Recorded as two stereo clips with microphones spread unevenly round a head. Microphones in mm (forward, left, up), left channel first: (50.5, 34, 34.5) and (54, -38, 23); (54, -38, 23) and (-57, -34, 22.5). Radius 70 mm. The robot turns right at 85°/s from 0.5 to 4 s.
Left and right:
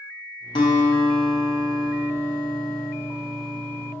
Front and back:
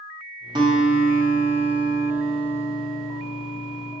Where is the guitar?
120° left, 0.6 m; by 4.0 s 50° left, 0.6 m.